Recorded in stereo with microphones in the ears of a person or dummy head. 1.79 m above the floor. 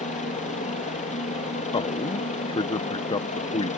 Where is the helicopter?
40° left (ahead or behind).